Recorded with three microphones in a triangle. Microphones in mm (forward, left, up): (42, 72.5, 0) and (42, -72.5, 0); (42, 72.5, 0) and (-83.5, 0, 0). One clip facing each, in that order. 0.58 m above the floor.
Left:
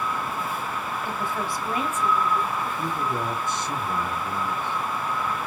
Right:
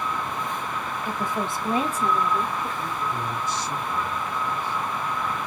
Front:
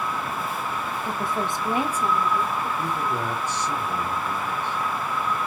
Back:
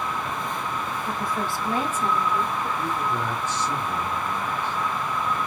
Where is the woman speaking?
10° right, 0.9 m; by 2.7 s 55° right, 1.4 m.